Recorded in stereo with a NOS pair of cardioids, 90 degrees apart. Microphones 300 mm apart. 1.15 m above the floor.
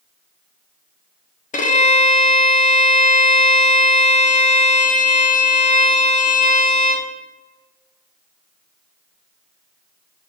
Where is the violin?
25° left, 0.8 m.